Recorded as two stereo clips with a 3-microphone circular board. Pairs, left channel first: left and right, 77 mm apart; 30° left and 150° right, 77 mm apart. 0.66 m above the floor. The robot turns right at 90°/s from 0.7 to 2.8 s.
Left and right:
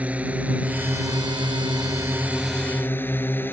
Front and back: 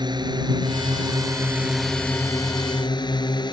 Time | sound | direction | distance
0.0 | a drone | 160° right | ?